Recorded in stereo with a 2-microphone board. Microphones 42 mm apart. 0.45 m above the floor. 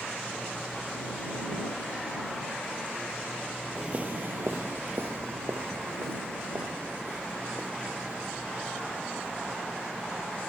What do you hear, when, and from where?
3.8 s footsteps: 25° right (ahead or behind); by 9.5 s 70° right (ahead or behind)